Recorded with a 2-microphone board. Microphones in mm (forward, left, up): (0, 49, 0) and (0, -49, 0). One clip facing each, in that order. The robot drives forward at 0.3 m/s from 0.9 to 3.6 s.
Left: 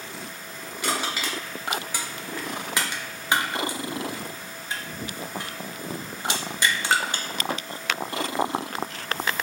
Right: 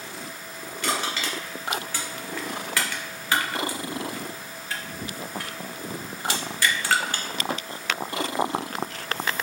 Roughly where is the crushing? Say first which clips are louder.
Even; centre.